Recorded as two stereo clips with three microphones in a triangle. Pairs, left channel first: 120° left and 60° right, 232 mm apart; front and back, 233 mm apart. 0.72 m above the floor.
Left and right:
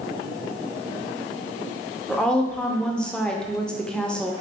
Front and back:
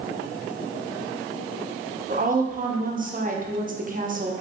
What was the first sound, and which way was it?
A woman speaking, 155° right.